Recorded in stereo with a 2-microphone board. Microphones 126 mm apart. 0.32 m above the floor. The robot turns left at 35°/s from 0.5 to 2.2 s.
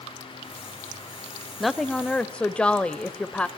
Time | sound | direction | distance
1.6 | a woman speaking | centre (ahead or behind) | 1.2 m